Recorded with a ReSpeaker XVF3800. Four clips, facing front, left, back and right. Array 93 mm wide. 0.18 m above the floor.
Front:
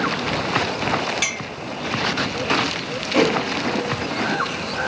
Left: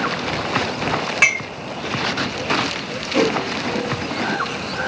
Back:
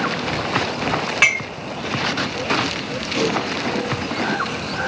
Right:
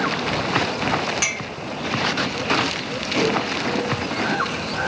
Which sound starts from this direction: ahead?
A whoosh, at 3.1 s.